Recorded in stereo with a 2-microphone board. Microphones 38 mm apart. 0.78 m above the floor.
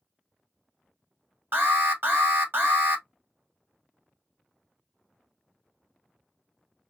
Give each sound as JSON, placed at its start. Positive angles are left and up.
{"t": 1.5, "sound": "an alarm", "side_deg": -60, "distance_m": 1.6}